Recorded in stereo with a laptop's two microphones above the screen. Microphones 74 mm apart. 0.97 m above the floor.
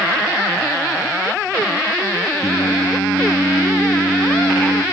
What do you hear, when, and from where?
2.4 s singing: 60° left (ahead or behind), 0.5 m